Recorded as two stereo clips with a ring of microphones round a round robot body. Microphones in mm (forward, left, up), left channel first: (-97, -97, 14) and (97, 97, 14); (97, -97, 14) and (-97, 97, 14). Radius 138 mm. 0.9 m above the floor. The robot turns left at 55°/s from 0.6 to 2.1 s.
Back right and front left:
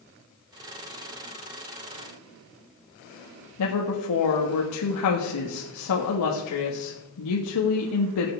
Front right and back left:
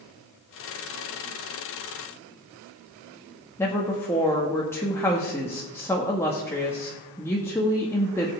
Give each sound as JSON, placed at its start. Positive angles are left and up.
{"t": 3.6, "sound": "a woman speaking", "azimuth_deg": -125, "distance_m": 1.6}